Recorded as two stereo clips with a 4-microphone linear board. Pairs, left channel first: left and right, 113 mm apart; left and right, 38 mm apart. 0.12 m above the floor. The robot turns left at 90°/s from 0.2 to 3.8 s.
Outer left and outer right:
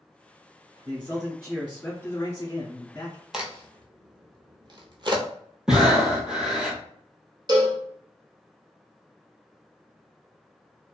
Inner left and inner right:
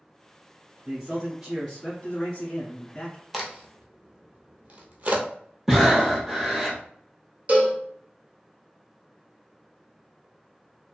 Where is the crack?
5° right (ahead or behind), 0.7 m; by 5.2 s 45° right (ahead or behind), 0.7 m.